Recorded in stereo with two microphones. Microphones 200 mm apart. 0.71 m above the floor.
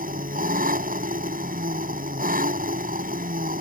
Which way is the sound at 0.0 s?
45° right (ahead or behind).